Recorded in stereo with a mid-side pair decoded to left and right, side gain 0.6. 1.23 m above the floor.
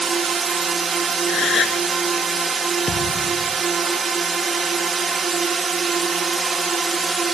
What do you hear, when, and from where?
0.0 s a drone: 30° right
1.3 s a gasp: 45° left
2.9 s a thud: 35° left